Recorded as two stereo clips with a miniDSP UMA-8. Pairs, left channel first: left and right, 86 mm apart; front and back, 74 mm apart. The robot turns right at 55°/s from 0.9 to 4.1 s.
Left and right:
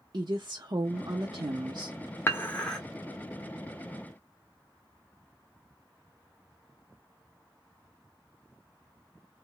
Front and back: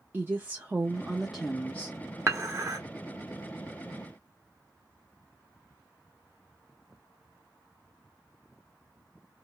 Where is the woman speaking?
120° right, 0.6 m; by 2.0 s 60° right, 0.6 m.